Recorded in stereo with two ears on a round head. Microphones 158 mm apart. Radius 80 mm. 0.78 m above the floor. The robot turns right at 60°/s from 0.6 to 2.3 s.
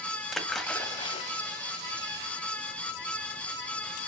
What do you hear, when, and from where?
0.3 s a splash: centre (ahead or behind), 1.3 m; by 1.3 s 40° left (ahead or behind), 1.3 m